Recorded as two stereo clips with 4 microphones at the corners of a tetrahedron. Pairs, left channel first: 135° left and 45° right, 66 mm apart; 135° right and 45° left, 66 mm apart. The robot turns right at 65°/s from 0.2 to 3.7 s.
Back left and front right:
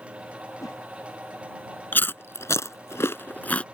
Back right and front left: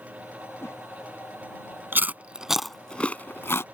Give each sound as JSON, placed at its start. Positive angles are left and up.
{"t": 0.6, "sound": "a whoosh", "azimuth_deg": 170}
{"t": 1.9, "sound": "chewing", "azimuth_deg": 90}